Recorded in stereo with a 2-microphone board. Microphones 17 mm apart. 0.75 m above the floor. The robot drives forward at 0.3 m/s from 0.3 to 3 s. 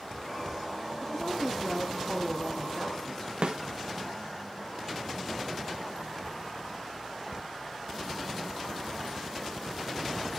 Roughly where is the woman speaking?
Centre.